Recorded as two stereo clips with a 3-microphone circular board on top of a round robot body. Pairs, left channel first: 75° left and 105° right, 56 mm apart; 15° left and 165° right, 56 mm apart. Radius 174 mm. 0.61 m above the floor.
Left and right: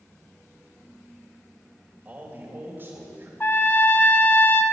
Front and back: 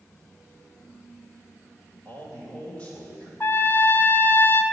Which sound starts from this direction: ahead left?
A trumpet, at 3.4 s.